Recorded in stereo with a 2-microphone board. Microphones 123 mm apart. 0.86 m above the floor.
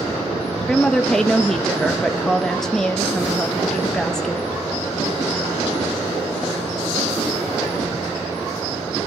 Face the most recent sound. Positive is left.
turn(degrees=5)  # may be behind; listen again after turning